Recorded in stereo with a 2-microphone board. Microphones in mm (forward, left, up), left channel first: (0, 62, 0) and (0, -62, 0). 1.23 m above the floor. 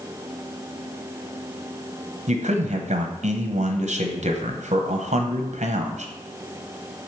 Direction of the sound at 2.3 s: 65° right (ahead or behind).